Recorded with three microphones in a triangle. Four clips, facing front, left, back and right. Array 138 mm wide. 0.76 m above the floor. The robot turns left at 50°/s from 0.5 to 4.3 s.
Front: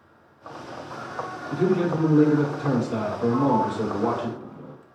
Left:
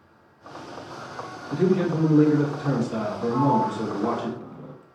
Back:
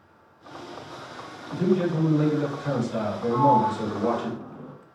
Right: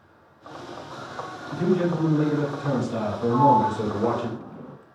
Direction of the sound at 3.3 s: 85° right.